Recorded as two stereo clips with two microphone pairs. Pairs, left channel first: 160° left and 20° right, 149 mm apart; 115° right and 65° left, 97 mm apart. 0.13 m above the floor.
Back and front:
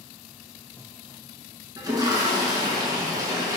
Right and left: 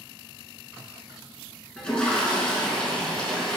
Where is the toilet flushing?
35° right, 0.8 m.